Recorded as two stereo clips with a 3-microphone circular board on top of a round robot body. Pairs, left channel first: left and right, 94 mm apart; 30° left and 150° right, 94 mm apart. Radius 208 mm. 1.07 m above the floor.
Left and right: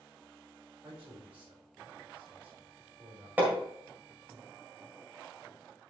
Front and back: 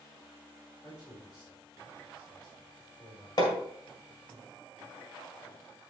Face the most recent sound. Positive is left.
turn(degrees=-15)